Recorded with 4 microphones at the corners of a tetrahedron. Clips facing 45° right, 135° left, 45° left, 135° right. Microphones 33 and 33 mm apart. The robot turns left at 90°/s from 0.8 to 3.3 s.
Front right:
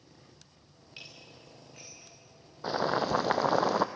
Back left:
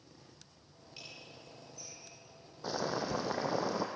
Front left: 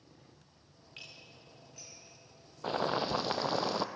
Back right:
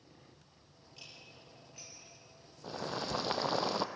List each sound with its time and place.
1.0 s dishes clattering: 15° left, 8.5 m; by 2.1 s 90° right, 8.5 m
2.6 s boiling: 15° left, 1.3 m; by 3.9 s 45° right, 1.3 m